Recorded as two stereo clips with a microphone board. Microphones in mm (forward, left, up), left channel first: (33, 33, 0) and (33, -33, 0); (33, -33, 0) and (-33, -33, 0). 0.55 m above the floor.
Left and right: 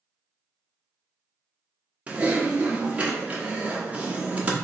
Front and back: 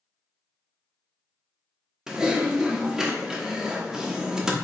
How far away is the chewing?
I don't hear chewing.